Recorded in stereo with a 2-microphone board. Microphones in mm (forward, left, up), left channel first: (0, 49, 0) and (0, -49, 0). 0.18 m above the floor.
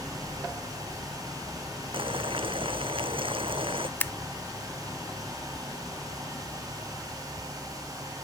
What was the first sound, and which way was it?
Boiling, 65° right (ahead or behind).